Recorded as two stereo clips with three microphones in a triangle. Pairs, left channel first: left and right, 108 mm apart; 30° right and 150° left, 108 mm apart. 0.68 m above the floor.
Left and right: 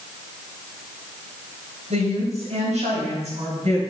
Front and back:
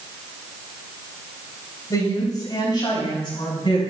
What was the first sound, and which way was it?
A woman speaking, 85° right.